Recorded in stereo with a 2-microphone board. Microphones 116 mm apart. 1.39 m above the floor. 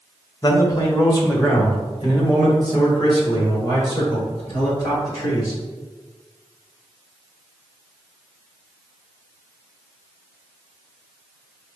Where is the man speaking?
30° left (ahead or behind), 1.1 m; by 5.6 s 40° left (ahead or behind), 4 m.